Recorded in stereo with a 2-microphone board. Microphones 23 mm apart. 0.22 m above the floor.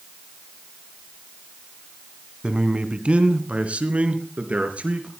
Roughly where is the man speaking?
Right.